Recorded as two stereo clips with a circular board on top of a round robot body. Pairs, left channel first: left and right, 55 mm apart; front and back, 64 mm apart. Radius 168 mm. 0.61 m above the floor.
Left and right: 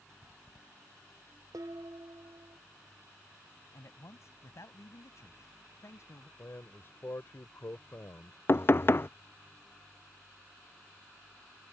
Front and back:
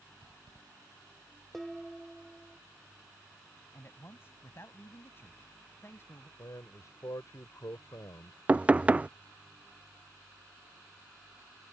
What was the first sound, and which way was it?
Dishes clattering, 90° right.